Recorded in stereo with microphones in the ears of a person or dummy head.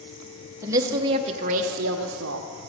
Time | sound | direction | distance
0.6 | a woman speaking | 15° right (ahead or behind) | 1.1 m